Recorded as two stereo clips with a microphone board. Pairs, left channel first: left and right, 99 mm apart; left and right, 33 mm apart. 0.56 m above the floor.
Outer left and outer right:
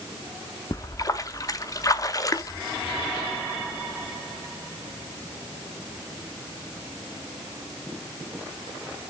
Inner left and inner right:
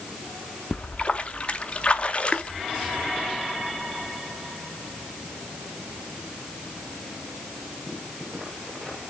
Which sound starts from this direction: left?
A splash, at 0.7 s.